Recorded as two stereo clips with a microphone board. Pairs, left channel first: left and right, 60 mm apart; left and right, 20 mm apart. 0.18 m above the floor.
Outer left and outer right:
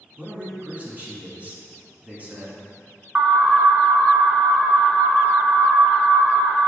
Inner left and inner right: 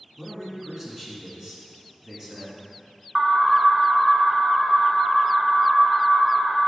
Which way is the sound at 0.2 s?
25° right (ahead or behind).